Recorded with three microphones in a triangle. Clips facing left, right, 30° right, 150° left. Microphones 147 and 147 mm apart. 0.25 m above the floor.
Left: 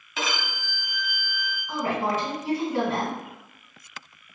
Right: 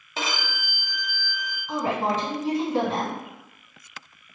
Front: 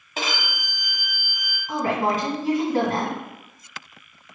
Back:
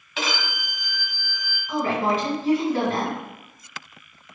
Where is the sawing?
No sawing in this recording.